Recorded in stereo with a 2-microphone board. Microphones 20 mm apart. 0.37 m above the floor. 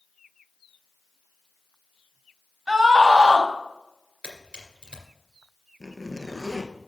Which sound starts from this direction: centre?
A zipper, at 5.8 s.